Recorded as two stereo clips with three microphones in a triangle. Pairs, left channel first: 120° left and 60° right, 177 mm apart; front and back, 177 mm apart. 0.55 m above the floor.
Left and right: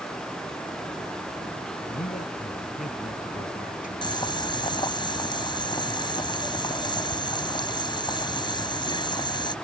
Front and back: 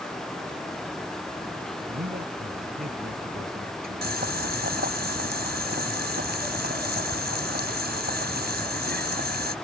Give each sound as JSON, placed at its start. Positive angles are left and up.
{"t": 1.9, "sound": "a man speaking", "azimuth_deg": 155}
{"t": 4.0, "sound": "boiling", "azimuth_deg": 180}